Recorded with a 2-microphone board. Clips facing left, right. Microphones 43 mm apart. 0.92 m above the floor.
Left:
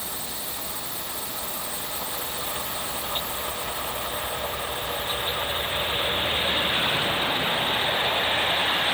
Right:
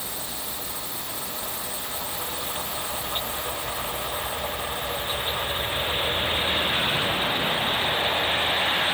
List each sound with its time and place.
Only background noise.